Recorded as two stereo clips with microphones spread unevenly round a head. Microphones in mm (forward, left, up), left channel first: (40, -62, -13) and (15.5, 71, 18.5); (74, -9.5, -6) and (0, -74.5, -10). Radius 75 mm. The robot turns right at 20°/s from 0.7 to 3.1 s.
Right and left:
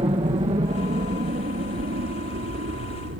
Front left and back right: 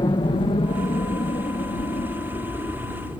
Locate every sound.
0.0 s a helicopter: 65° left; by 3.2 s 110° left